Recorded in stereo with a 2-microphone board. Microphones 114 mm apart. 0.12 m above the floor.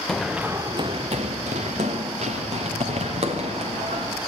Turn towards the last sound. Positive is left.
turn(degrees=-65)  # may be behind; listen again after turning